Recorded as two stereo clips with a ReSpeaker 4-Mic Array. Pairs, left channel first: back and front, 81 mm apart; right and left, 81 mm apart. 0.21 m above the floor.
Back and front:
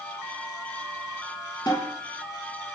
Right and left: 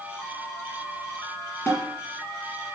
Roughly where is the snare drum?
Behind right.